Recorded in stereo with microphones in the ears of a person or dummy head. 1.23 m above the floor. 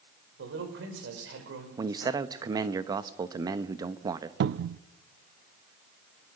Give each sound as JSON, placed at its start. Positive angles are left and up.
{"t": 0.4, "sound": "a man speaking", "side_deg": -65, "distance_m": 5.5}
{"t": 1.8, "sound": "a man speaking", "side_deg": -15, "distance_m": 1.0}
{"t": 4.4, "sound": "a cupboard door", "side_deg": -55, "distance_m": 0.5}